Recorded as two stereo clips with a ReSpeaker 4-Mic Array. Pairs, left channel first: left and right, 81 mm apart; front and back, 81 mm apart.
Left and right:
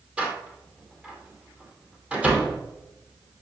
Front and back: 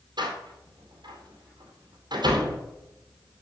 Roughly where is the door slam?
Behind.